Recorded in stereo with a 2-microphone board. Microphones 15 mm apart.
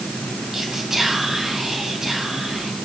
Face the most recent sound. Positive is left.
turn(degrees=-35)  # may be behind; listen again after turning